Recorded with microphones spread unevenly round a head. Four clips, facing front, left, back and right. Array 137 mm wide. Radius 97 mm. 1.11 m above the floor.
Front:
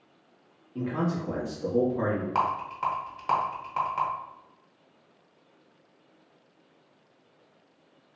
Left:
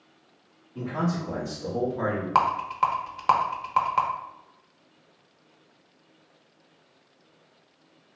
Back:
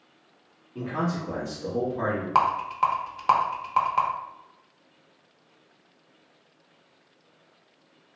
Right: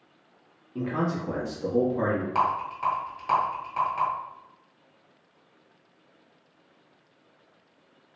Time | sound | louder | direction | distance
0.8 | a man speaking | right 1 dB, even | 115° right | 1.3 m
2.4 | a rattle | left 3 dB, back 5 dB | 120° left | 0.6 m